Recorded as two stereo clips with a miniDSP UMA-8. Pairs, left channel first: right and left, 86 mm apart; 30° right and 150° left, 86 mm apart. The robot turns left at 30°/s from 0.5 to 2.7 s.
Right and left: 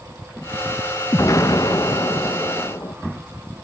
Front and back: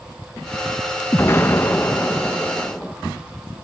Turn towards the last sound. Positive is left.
turn(degrees=-115)